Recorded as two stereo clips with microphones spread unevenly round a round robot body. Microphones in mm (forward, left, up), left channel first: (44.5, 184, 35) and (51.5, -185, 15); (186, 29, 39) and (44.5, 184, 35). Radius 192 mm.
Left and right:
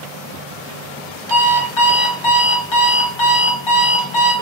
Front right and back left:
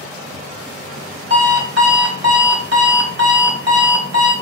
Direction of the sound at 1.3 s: 95° left.